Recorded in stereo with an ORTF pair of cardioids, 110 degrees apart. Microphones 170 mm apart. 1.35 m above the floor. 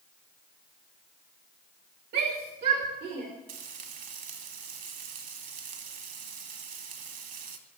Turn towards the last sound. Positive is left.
turn(degrees=-50)